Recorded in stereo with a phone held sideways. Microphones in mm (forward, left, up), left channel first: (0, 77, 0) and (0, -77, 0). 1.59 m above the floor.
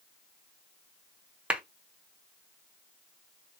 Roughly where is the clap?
Centre.